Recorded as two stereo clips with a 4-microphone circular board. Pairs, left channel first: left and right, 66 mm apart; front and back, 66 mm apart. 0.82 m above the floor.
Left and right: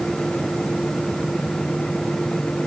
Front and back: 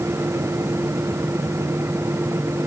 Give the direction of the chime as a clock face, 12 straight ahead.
No chime in this recording.